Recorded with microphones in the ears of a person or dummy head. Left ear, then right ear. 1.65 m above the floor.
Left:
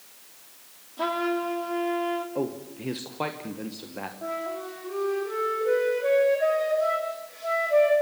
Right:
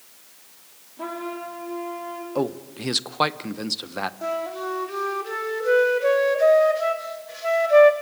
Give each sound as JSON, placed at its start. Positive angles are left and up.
{"t": 1.0, "sound": "a trumpet", "side_deg": 50, "distance_m": 2.5}
{"t": 2.4, "sound": "a man speaking", "side_deg": -50, "distance_m": 1.0}
{"t": 4.2, "sound": "a flute", "side_deg": -70, "distance_m": 2.5}